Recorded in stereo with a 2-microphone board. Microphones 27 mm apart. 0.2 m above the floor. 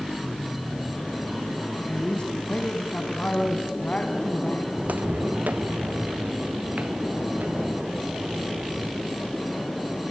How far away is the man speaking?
About 1.3 m.